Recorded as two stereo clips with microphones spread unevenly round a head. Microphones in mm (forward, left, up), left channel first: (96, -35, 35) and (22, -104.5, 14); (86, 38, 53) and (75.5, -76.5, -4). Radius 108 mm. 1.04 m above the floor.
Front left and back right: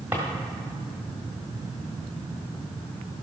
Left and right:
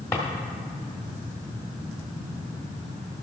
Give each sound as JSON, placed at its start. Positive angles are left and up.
{"t": 0.1, "sound": "a drawer", "azimuth_deg": 135, "distance_m": 1.2}